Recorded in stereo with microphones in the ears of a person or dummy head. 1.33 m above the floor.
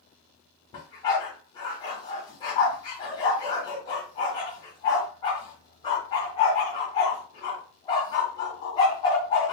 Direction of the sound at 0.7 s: 20° left (ahead or behind).